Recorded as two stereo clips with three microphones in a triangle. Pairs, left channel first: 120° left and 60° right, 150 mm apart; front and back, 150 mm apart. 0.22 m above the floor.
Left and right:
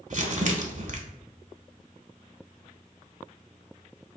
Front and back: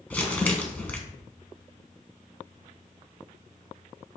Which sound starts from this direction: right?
Crumpling, at 0.1 s.